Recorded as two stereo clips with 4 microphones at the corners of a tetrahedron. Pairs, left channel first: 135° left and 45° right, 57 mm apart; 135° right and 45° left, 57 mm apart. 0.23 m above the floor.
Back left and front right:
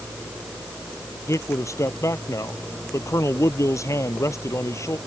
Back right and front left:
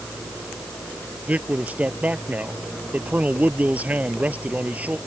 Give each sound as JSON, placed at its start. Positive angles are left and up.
{"t": 1.3, "sound": "a man speaking", "azimuth_deg": 110}